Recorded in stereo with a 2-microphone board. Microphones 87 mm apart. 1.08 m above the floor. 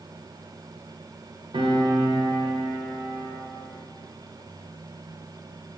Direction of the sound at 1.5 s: 80° right.